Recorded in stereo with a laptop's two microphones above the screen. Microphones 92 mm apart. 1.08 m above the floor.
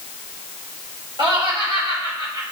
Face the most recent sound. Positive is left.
turn(degrees=-55)  # may be behind; listen again after turning